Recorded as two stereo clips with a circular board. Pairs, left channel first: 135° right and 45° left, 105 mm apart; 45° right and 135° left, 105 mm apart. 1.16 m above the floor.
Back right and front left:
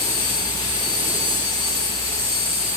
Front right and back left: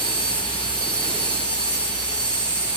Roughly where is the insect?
Ahead left.